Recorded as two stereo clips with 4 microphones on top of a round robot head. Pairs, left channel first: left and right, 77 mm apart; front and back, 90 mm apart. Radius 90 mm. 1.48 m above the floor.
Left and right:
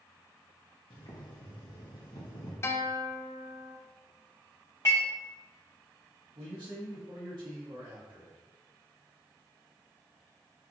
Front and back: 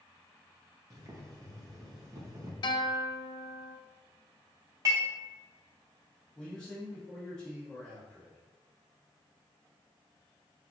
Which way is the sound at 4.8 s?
155° left.